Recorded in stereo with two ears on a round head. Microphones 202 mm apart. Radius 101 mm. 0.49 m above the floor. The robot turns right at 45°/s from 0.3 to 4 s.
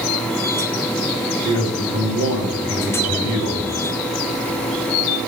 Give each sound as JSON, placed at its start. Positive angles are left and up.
{"t": 1.4, "sound": "a man speaking", "azimuth_deg": -155, "distance_m": 3.0}